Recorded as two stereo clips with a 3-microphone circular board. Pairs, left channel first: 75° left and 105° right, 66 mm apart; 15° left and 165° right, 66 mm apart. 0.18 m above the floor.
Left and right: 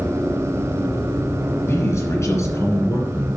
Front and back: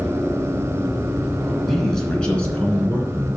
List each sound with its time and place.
1.6 s a man speaking: 100° left, 2.5 m; by 3.3 s 65° left, 2.5 m